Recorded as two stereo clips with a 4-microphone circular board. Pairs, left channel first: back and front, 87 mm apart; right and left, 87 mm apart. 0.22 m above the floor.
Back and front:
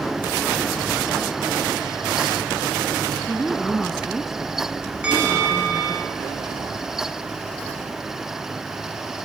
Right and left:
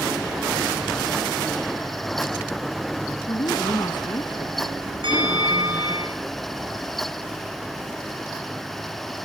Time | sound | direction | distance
3.3 | a woman speaking | 90° right | 1.9 m
5.0 | a bell | 75° left | 7 m